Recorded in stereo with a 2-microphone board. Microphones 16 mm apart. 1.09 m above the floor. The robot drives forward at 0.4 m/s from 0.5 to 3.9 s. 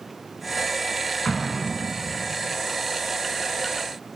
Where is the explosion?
55° left (ahead or behind), 5.5 m; by 2.2 s 60° left (ahead or behind), 5 m.